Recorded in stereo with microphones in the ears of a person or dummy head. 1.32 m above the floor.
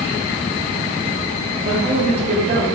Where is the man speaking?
50° right (ahead or behind), 1.3 m.